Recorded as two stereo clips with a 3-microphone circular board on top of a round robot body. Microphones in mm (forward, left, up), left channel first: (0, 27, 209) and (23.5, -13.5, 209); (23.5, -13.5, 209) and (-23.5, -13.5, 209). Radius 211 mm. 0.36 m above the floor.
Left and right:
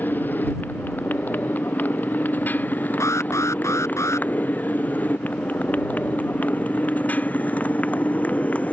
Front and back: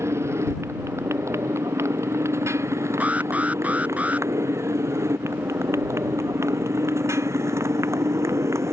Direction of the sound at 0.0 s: 170° left.